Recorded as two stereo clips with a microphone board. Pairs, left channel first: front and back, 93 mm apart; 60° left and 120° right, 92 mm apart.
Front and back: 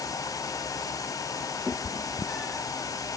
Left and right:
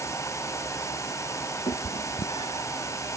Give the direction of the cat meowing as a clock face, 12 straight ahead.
9 o'clock.